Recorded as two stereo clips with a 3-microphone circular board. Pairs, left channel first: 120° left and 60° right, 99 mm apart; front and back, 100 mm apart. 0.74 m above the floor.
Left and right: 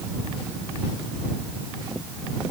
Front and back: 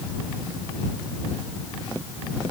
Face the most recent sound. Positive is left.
No sound to turn to.